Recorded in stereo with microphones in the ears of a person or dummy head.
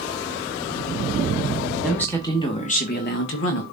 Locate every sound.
1.8 s a man speaking: 5° left (ahead or behind), 2 m; by 3.6 s 75° left (ahead or behind), 2 m